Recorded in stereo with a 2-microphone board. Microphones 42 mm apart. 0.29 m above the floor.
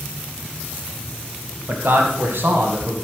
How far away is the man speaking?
About 1.9 m.